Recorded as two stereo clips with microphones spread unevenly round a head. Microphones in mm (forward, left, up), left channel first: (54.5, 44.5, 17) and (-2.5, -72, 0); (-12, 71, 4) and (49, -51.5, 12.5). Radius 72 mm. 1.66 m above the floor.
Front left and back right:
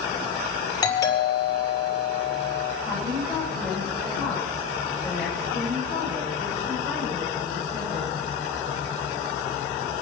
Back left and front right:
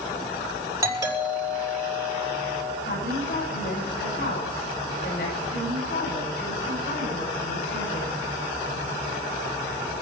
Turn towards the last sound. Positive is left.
turn(degrees=150)